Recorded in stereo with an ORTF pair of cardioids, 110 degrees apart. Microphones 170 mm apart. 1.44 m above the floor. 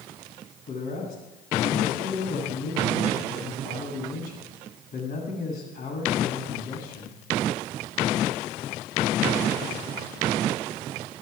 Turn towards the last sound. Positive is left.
turn(degrees=65)